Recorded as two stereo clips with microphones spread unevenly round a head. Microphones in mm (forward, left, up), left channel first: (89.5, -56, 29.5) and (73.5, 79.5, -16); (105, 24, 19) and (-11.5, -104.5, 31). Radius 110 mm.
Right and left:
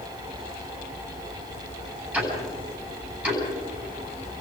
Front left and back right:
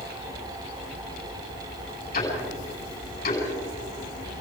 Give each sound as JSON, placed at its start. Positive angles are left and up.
{"t": 2.1, "sound": "ticking", "azimuth_deg": 15, "distance_m": 10.0}